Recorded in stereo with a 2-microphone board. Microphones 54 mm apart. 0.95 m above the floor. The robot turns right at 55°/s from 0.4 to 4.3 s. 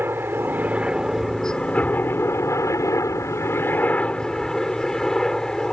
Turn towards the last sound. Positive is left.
turn(degrees=165)